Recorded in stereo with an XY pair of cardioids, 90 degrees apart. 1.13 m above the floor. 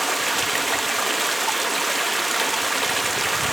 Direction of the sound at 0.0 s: 15° right.